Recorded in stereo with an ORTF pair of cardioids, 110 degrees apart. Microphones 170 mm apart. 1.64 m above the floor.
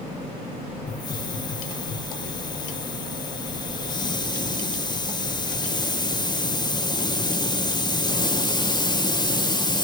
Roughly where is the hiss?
Ahead left.